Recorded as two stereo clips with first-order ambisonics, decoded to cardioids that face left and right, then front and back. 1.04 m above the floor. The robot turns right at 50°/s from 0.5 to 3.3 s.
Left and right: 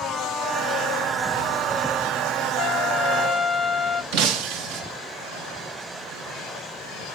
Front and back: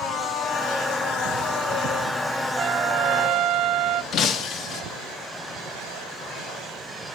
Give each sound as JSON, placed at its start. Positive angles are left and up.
{"t": 2.6, "sound": "a trumpet", "azimuth_deg": 130, "distance_m": 0.6}
{"t": 4.1, "sound": "breaking glass", "azimuth_deg": -60, "distance_m": 0.8}